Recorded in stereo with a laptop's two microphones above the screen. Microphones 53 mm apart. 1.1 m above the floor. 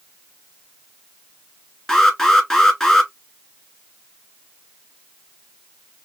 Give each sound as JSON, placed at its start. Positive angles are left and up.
{"t": 1.9, "sound": "an alarm", "side_deg": 15, "distance_m": 1.9}